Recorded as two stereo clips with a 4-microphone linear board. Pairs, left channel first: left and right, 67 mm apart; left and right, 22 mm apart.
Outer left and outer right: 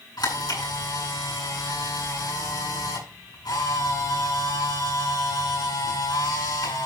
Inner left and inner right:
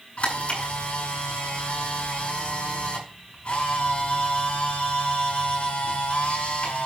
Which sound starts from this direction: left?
A camera shutter, at 0.2 s.